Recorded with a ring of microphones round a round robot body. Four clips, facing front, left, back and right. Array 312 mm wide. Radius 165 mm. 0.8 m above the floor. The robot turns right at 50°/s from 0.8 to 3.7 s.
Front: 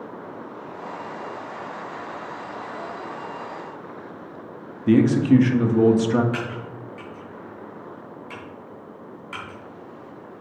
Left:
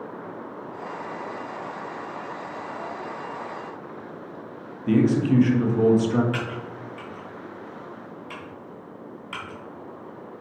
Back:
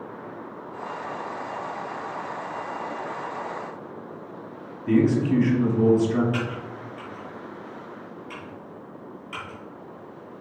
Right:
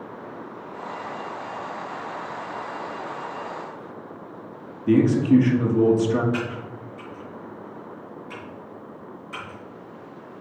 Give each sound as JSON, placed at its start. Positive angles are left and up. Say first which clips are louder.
{"t": 4.9, "sound": "a man speaking", "louder": "right 2 dB, front 4 dB", "azimuth_deg": 0, "distance_m": 1.4}
{"t": 6.3, "sound": "typing on a keyboard", "louder": "right 2 dB, even", "azimuth_deg": 70, "distance_m": 2.5}